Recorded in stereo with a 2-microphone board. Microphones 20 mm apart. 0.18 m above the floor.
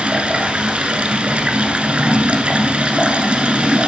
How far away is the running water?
About 1.0 m.